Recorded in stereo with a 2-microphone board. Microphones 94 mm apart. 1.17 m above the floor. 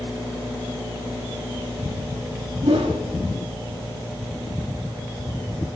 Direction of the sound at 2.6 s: 75° right (ahead or behind).